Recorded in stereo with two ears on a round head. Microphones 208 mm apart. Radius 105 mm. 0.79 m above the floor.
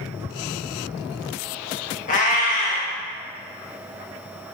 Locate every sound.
2.1 s a cat meowing: 35° left (ahead or behind), 0.7 m